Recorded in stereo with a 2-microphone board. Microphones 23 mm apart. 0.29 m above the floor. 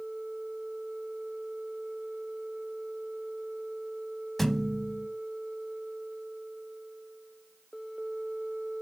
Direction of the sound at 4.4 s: 5° left (ahead or behind).